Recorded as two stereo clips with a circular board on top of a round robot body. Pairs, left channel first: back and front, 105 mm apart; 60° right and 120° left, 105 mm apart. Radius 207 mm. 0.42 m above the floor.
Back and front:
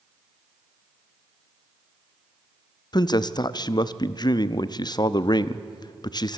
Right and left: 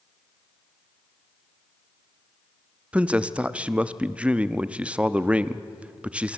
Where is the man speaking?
165° right, 0.9 m.